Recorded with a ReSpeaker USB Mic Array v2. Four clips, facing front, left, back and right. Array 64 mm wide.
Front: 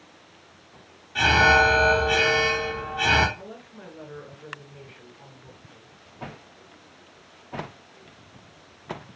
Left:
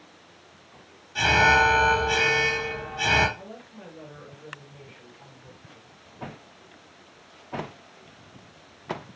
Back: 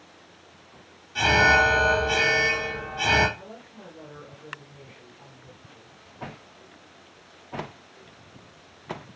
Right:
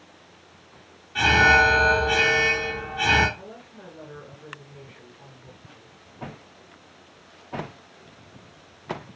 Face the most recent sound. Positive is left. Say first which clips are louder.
# even, front 2 dB
turn(degrees=-20)